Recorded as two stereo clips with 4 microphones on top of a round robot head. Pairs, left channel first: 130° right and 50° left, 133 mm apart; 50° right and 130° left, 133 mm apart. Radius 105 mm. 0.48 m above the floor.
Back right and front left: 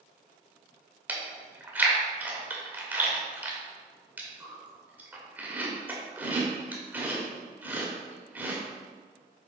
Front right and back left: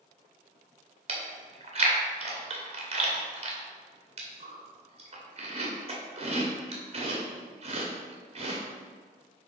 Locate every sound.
1.1 s chewing: 120° left, 1.6 m